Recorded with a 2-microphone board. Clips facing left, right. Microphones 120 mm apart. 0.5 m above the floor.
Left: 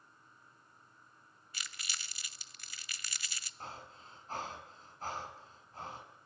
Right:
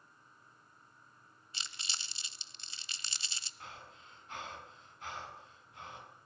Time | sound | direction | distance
1.5 | crumpling | 25° right (ahead or behind) | 1.0 m
3.6 | breathing | 35° left (ahead or behind) | 6 m